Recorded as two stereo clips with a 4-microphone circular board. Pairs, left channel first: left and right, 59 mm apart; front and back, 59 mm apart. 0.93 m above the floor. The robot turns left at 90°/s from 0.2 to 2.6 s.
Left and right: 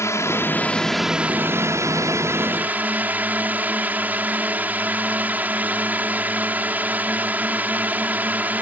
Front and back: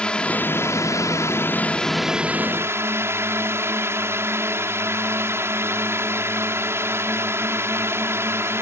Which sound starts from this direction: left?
A drone, at 0.0 s.